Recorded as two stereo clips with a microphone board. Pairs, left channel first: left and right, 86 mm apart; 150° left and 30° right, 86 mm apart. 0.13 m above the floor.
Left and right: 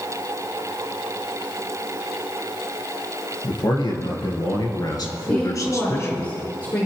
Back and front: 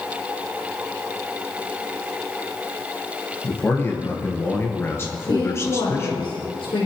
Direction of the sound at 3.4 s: 90° left.